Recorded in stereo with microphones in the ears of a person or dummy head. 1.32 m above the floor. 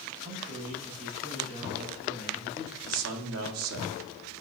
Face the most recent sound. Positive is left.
turn(degrees=-75)  # may be behind; listen again after turning